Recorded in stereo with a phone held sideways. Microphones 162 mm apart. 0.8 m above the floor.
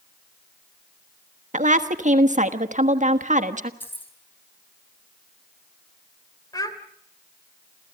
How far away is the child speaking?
About 2 m.